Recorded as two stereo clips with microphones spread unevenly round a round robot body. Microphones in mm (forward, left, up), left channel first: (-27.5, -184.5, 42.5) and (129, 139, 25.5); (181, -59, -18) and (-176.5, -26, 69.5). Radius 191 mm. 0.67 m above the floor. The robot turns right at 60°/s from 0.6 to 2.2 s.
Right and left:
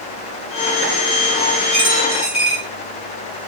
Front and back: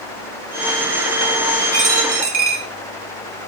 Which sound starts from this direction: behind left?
A dropped coin, at 1.7 s.